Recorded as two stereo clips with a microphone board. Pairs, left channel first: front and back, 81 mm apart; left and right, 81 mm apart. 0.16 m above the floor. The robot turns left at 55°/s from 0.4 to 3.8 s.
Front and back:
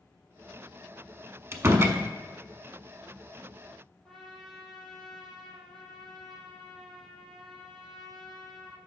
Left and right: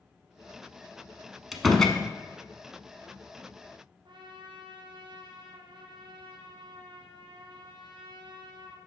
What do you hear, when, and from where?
1.5 s a door slam: 175° right, 0.8 m; by 2.0 s 160° left, 0.8 m
4.0 s a trumpet: 80° right, 1.7 m